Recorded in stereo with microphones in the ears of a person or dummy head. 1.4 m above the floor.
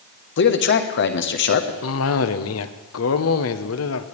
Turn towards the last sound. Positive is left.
turn(degrees=65)  # may be behind; listen again after turning